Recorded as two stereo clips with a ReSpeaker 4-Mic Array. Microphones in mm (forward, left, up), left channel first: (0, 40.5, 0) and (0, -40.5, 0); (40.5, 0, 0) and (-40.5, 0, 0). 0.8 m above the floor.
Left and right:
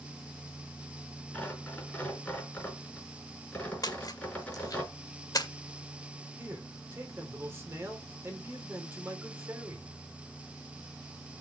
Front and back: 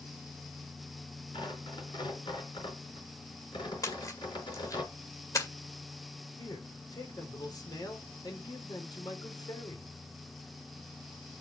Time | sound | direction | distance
1.3 | tearing paper | 15° left | 4.5 m
3.8 | a splash | 50° left | 2.0 m
6.4 | a man speaking | 30° right | 3 m